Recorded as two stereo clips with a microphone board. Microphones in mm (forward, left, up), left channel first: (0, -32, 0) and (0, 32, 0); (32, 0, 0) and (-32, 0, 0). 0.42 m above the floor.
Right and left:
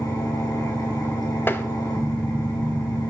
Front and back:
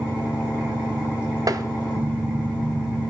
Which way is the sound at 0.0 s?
100° right.